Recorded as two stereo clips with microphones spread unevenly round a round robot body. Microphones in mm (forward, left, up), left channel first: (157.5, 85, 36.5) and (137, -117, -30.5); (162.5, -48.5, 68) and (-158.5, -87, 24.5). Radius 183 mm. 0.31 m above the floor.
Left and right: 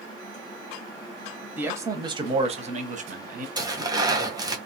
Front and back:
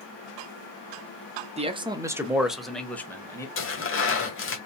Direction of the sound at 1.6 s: 135° right.